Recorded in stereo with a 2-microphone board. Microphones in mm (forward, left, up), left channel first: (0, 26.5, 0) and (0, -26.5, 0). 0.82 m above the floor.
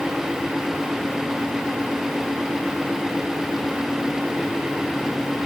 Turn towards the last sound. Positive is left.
No sound to turn to.